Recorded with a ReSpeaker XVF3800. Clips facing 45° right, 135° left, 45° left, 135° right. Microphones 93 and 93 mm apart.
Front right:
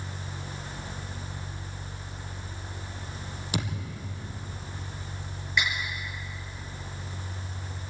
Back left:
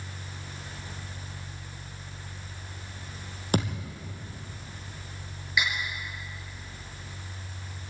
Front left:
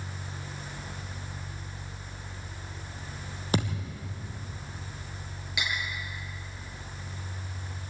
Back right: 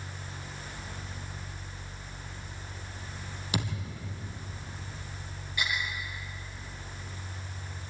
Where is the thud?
95° left, 3 m.